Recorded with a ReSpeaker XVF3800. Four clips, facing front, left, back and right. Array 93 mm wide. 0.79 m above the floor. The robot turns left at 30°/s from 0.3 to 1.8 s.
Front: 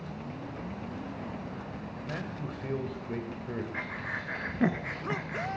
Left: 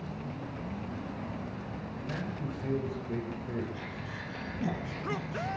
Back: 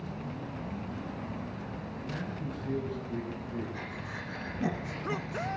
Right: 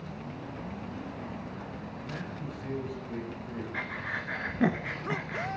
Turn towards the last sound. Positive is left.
turn(degrees=-50)